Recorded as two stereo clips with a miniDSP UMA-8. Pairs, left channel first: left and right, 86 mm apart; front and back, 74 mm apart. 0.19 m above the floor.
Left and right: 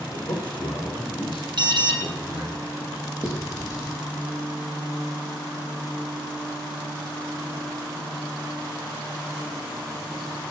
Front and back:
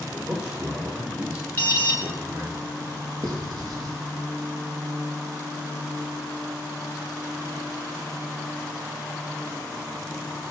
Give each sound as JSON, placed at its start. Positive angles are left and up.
{"t": 0.1, "sound": "a man speaking", "azimuth_deg": 105, "distance_m": 7.0}
{"t": 1.6, "sound": "an alarm", "azimuth_deg": -65, "distance_m": 3.0}
{"t": 3.2, "sound": "writing", "azimuth_deg": 145, "distance_m": 6.0}